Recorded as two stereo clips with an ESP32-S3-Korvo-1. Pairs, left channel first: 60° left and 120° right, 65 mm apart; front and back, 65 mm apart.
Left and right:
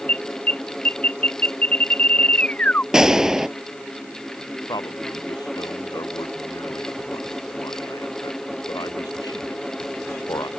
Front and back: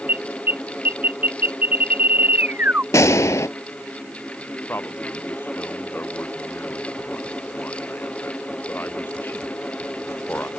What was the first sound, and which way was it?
An alarm, 125° left.